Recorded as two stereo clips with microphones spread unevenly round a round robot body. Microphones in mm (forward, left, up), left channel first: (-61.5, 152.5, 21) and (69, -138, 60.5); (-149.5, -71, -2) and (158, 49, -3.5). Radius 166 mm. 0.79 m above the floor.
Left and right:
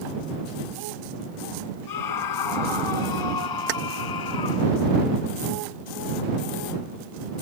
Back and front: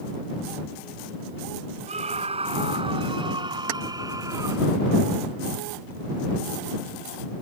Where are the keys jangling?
10° right.